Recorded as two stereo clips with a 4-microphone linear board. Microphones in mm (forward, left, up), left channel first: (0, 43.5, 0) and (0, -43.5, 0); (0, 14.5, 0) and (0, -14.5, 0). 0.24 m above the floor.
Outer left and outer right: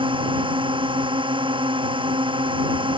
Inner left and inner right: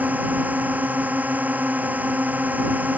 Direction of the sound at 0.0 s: 75° right (ahead or behind).